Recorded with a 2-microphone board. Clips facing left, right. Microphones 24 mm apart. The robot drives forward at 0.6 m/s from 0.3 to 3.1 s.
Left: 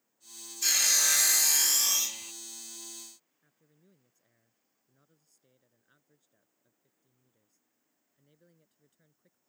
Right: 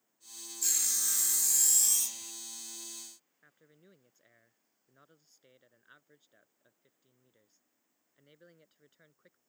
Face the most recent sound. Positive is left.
turn(degrees=-45)  # may be behind; listen again after turning